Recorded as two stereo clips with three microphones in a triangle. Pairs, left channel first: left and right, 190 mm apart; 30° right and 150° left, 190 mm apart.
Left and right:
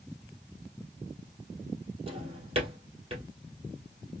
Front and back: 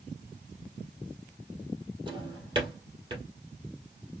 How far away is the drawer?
About 2.5 m.